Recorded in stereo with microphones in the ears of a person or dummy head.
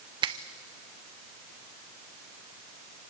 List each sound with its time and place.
0.2 s a finger snap: 30° right (ahead or behind), 0.7 m